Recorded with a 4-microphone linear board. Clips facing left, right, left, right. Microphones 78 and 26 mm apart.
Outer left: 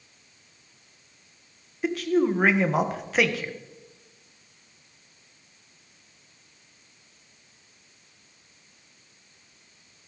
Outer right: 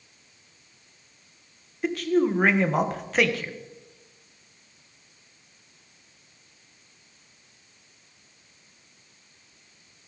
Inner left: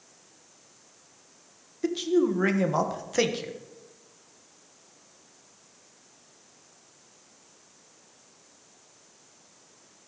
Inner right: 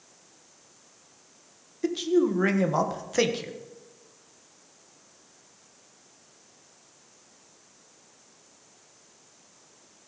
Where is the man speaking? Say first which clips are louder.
Even, inner right 1 dB; centre (ahead or behind), 1.3 m.